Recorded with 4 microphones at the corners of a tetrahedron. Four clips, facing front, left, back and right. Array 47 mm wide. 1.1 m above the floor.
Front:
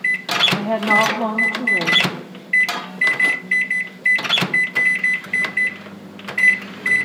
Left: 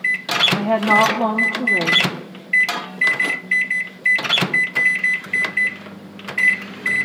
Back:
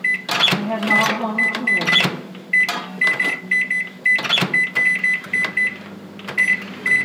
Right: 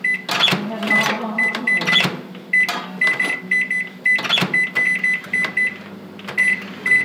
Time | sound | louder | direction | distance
0.6 | a woman speaking | left 4 dB, front 1 dB | 70° left | 1.2 m